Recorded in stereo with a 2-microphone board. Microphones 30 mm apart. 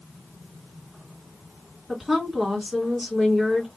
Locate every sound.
1.9 s a woman speaking: 10° right (ahead or behind), 1.8 m